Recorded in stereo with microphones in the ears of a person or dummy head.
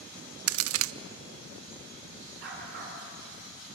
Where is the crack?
80° right, 0.6 m.